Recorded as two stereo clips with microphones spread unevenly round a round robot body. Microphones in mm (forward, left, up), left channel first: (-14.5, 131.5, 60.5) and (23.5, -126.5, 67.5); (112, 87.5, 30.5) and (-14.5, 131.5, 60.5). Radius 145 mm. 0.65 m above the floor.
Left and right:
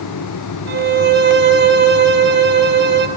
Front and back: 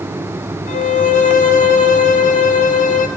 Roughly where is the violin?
Ahead right.